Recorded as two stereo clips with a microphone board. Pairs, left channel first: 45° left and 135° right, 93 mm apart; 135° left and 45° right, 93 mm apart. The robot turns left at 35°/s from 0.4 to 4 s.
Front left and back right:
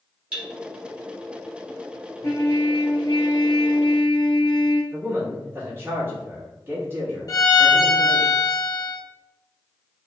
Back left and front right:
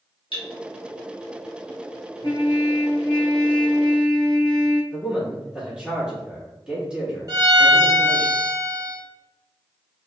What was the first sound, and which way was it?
Cutlery clinking, 150° left.